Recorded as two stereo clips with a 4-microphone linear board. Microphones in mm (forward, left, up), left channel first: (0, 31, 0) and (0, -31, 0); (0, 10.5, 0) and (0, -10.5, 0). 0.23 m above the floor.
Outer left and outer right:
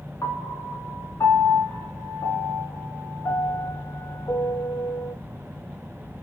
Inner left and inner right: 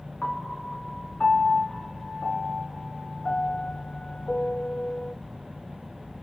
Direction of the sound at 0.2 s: 65° left (ahead or behind).